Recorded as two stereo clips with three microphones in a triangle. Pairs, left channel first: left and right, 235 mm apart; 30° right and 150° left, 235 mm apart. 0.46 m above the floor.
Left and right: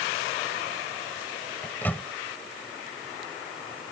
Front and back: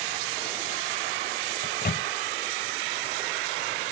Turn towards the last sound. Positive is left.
turn(degrees=10)